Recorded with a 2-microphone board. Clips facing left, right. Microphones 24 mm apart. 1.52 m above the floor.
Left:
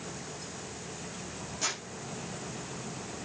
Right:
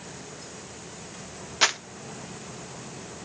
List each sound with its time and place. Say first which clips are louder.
1.6 s crumpling: right 11 dB; 80° right, 1.3 m